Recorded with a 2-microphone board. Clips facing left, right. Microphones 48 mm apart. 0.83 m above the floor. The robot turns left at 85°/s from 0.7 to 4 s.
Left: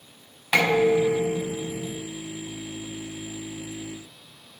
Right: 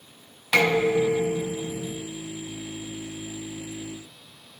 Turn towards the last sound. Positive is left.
turn(degrees=90)